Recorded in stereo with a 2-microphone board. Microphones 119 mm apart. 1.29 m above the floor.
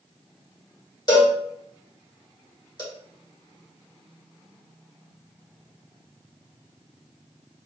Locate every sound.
1.1 s a cowbell: 35° left (ahead or behind), 1.5 m